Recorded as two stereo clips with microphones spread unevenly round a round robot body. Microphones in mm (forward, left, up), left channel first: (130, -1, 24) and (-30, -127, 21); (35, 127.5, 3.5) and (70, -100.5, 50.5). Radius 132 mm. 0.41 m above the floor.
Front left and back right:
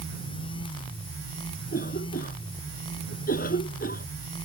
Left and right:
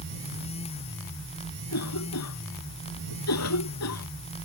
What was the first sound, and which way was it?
A cough, 100° left.